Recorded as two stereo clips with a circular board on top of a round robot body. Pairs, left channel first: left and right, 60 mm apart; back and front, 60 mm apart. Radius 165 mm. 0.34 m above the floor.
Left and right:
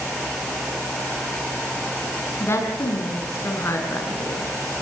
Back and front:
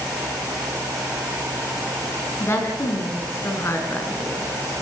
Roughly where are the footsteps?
I don't hear footsteps.